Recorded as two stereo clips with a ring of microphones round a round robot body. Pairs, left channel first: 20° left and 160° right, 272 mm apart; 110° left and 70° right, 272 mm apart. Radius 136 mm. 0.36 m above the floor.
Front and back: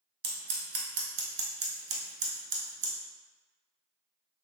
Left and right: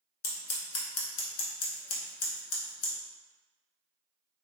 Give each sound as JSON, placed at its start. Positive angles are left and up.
{"t": 0.2, "sound": "scissors", "azimuth_deg": 150, "distance_m": 0.8}